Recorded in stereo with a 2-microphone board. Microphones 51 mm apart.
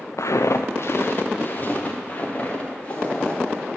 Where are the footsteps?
80° left, 0.6 m; by 3.7 s 20° left (ahead or behind), 2.5 m.